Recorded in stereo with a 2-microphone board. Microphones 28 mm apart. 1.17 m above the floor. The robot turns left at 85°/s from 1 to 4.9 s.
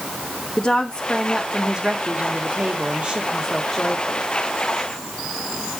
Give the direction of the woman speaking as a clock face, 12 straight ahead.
12 o'clock.